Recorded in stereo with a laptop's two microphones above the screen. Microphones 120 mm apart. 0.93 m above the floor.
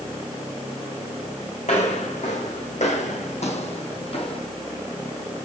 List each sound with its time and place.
1.6 s footsteps: 70° left (ahead or behind), 3 m; by 4.4 s 50° left (ahead or behind), 1.5 m